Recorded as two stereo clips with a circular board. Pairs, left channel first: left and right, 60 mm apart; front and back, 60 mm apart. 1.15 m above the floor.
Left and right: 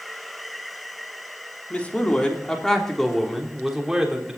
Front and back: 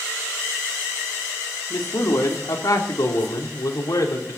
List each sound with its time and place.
1.7 s a man speaking: 25° left, 3 m; by 4.4 s 10° right, 3.5 m